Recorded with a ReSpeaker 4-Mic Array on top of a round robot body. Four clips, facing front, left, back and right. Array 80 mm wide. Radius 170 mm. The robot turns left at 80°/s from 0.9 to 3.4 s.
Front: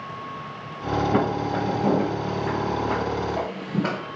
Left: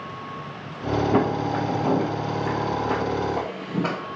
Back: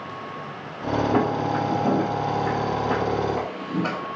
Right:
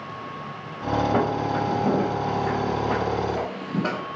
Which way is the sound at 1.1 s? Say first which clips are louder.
Left 1 dB, back 1 dB; 65° left.